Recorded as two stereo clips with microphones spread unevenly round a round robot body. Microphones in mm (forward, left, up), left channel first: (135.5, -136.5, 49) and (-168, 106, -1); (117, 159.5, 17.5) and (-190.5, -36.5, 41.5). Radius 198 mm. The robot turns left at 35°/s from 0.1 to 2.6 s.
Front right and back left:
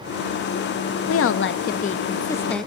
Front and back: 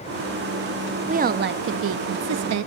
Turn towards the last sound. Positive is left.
turn(degrees=-135)